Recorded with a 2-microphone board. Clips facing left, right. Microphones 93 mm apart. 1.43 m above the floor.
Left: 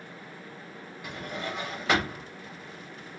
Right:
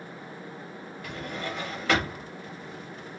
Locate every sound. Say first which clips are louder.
1.0 s a drawer: right 1 dB; 15° left (ahead or behind), 1.0 m